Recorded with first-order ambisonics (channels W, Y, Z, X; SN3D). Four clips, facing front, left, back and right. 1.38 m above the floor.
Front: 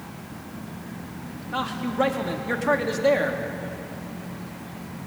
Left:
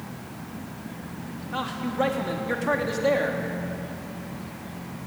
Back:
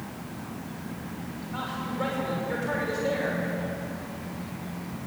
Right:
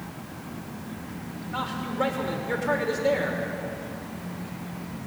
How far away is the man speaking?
About 3 m.